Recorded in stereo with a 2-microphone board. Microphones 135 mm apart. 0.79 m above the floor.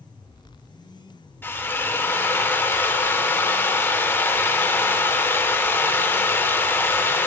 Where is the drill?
15° left (ahead or behind), 0.7 m.